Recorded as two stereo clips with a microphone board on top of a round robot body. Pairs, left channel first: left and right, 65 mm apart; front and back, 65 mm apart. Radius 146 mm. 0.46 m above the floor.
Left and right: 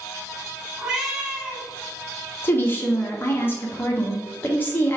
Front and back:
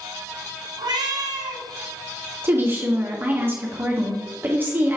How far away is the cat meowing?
About 0.7 m.